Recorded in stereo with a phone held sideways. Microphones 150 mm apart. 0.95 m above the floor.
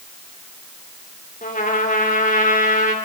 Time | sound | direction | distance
1.4 | a trumpet | 75° left (ahead or behind) | 3.5 m